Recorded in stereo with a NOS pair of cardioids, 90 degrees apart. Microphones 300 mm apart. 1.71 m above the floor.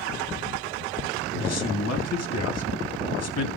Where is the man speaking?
55° left, 3 m.